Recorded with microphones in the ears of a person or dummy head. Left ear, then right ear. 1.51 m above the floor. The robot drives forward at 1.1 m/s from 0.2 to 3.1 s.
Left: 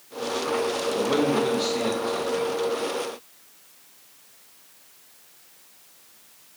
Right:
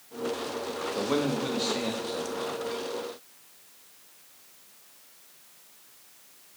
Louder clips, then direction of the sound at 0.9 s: Left 5 dB; 15° right (ahead or behind).